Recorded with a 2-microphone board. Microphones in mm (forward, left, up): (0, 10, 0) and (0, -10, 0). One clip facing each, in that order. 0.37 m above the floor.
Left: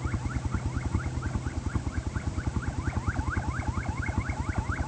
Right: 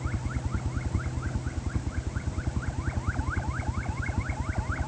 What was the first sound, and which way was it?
A helicopter, 35° left (ahead or behind).